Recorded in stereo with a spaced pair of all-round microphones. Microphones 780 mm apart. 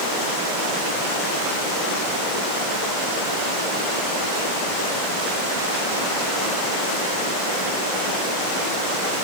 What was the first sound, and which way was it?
Only background noise.